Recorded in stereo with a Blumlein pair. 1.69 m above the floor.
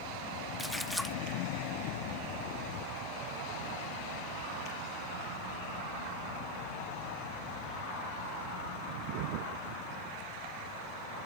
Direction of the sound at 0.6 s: 5° left.